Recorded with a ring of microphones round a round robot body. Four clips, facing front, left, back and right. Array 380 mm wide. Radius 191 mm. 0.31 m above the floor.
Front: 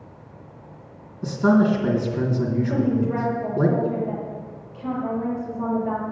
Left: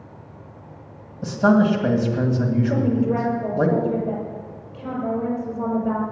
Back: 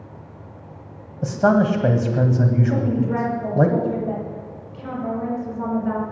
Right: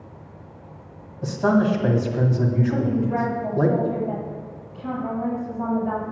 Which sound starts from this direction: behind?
A man speaking, at 1.2 s.